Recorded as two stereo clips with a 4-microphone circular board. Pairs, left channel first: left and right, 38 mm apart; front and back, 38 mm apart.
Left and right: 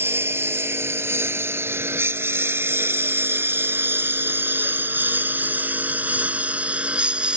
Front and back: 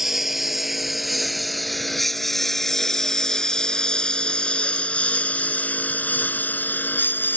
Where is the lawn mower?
95° right; by 7.4 s 25° right.